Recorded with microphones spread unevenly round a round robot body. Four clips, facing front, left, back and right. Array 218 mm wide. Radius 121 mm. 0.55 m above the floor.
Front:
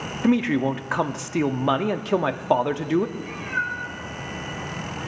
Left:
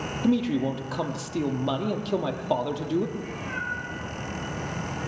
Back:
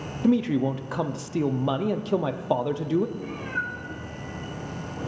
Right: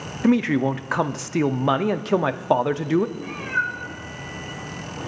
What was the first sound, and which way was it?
A man speaking, 50° right.